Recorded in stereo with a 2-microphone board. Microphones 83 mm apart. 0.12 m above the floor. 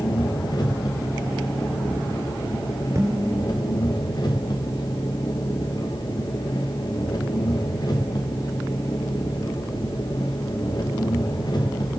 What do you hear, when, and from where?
0.0 s an engine running: 50° left (ahead or behind), 6 m
3.0 s dishes clattering: 40° right (ahead or behind), 5.5 m